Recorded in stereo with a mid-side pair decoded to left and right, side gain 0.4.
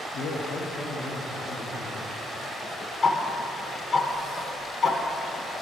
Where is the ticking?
40° left, 1.0 m.